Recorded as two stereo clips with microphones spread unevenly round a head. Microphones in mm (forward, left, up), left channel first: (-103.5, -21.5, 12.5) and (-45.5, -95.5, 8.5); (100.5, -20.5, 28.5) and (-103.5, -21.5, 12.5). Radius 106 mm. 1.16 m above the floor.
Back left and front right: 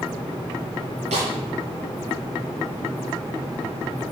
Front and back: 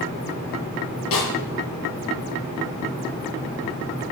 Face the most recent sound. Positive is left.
turn(degrees=-20)